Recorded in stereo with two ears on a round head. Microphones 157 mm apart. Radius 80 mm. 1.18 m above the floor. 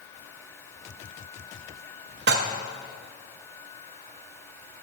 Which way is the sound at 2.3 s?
60° right (ahead or behind).